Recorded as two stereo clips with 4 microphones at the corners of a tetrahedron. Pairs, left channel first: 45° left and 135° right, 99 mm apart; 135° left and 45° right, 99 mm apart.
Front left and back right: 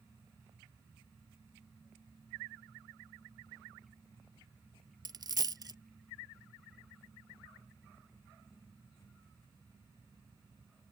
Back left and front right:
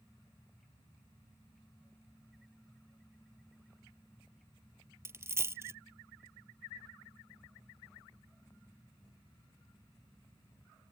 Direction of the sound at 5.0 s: 105° right.